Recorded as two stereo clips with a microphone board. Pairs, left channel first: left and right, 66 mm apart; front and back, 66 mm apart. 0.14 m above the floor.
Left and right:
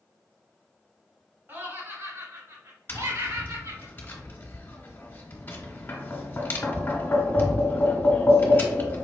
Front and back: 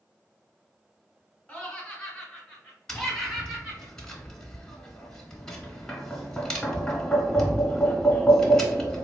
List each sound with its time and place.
1.5 s laughter: 60° right, 1.3 m; by 3.9 s 90° right, 2.5 m
2.9 s tapping: 70° left, 0.9 m